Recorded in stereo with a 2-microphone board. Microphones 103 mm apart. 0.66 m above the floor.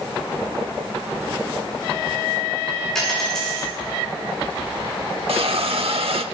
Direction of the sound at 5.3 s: 70° right (ahead or behind).